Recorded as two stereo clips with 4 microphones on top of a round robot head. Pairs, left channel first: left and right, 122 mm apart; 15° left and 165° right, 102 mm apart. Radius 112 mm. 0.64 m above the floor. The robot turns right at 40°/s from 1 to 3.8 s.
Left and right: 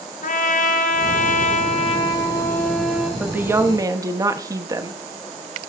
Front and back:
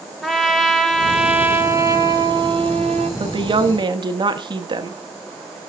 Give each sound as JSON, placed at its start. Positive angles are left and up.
{"t": 0.2, "sound": "a trumpet", "azimuth_deg": 105, "distance_m": 1.6}
{"t": 3.2, "sound": "a woman speaking", "azimuth_deg": -170, "distance_m": 1.4}